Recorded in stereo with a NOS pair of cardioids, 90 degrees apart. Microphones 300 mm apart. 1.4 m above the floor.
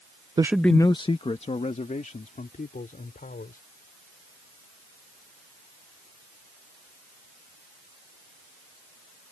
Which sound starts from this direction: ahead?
A man speaking, at 0.4 s.